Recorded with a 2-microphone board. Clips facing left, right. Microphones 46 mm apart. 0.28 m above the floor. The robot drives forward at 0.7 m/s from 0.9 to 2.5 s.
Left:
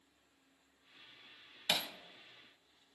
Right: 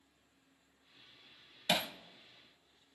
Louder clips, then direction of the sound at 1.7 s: Right 3 dB; 20° right (ahead or behind).